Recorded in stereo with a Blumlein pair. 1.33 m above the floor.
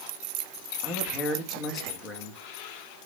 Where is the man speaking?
25° left, 2 m.